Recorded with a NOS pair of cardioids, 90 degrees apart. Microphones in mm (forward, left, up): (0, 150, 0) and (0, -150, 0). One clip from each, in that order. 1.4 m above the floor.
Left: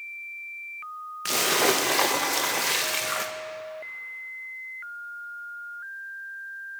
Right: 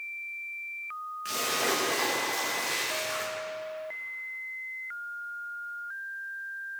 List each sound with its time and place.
1.2 s a splash: 65° left, 1.2 m